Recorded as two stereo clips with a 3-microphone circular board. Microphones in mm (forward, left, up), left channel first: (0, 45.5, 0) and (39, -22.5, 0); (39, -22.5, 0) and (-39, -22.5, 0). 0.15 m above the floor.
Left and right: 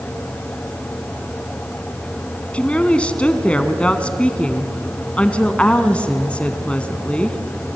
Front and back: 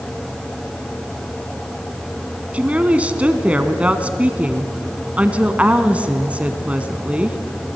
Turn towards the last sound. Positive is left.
turn(degrees=155)